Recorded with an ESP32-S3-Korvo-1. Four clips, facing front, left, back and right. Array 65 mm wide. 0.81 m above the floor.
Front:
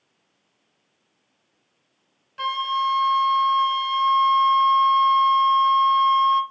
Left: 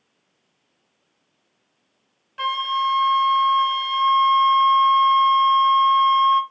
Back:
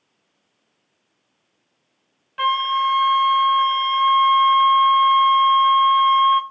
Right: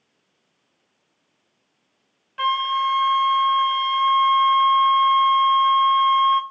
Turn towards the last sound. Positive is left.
turn(degrees=-175)